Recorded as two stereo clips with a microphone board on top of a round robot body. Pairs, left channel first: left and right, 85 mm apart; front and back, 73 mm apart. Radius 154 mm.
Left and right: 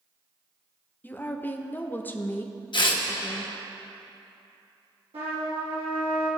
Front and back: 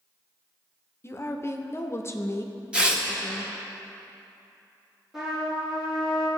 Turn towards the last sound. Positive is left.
turn(degrees=-95)